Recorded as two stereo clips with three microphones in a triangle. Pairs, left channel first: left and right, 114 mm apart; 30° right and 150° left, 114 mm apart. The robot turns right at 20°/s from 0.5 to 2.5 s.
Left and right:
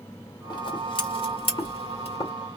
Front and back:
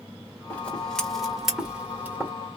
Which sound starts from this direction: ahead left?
Scissors, at 0.5 s.